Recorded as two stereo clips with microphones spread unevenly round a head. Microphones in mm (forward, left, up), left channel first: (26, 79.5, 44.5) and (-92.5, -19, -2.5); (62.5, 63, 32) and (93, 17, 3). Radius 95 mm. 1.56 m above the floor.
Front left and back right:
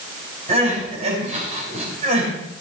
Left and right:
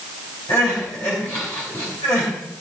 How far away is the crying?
About 6 m.